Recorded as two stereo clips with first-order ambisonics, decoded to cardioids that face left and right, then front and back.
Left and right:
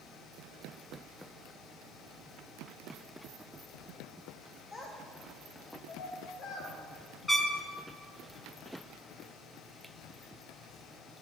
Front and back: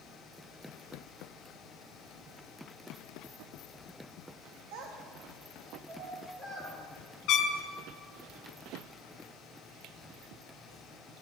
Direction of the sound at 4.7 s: 165° left.